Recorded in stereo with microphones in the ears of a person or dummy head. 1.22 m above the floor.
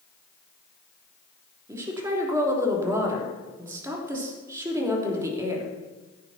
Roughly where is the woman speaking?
Centre.